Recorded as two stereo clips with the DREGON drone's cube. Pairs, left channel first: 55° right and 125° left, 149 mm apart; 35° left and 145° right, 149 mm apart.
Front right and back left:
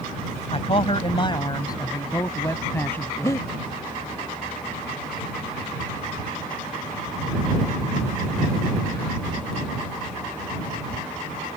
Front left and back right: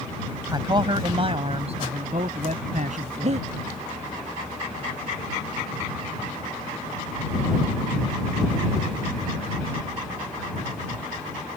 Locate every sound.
0.5 s a man speaking: 90° right; by 3.4 s 135° right
3.2 s breathing: 120° right